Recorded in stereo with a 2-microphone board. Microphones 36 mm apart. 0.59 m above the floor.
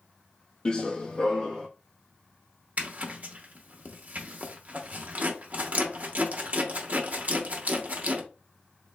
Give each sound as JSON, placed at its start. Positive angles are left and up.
{"t": 0.7, "sound": "running footsteps", "side_deg": 25, "distance_m": 0.6}
{"t": 2.8, "sound": "a zipper", "side_deg": -45, "distance_m": 0.9}